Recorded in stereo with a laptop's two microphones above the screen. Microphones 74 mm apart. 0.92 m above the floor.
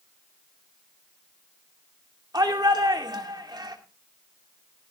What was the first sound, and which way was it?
A shout, 60° right (ahead or behind).